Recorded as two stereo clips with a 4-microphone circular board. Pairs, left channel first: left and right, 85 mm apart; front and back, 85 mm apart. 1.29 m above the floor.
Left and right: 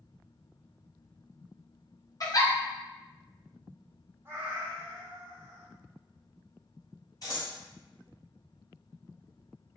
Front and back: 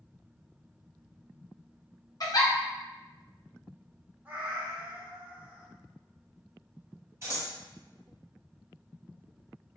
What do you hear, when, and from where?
2.2 s a giggle: 45° left, 0.7 m
4.2 s a cat meowing: 125° right, 0.7 m
7.2 s scissors: 125° left, 1.4 m